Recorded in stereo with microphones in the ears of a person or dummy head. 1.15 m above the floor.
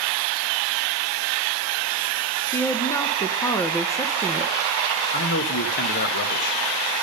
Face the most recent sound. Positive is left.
turn(degrees=55)  # may be behind; listen again after turning